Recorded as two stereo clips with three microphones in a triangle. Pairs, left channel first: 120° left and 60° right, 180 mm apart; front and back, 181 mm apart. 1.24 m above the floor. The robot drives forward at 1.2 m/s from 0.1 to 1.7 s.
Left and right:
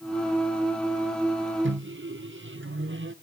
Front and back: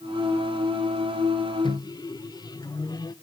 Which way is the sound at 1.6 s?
60° right.